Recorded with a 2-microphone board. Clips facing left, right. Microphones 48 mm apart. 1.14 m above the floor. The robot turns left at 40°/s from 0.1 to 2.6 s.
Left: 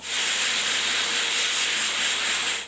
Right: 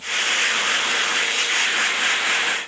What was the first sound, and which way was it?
Only background noise.